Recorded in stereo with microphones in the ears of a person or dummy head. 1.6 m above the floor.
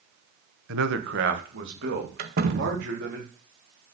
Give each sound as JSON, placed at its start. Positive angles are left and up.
{"t": 0.7, "sound": "a man speaking", "side_deg": -70, "distance_m": 1.1}
{"t": 2.2, "sound": "a door slam", "side_deg": -50, "distance_m": 1.5}